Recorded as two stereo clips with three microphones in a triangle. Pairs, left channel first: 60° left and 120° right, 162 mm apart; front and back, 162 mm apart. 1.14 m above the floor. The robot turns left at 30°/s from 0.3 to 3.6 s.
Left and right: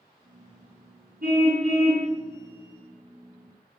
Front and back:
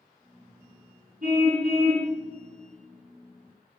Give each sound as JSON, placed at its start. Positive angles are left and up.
{"t": 1.2, "sound": "a car horn", "azimuth_deg": -145, "distance_m": 4.5}